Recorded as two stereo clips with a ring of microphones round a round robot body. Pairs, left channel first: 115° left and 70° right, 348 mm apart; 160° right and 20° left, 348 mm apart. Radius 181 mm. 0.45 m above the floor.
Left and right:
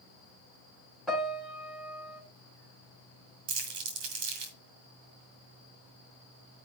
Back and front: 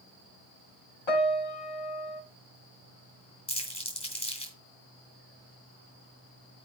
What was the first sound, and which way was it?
A piano, 155° right.